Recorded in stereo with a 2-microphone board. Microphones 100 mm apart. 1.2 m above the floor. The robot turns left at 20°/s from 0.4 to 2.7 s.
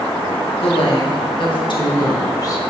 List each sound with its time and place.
0.6 s a woman speaking: 75° left, 1.7 m; by 2.6 s 35° left, 1.7 m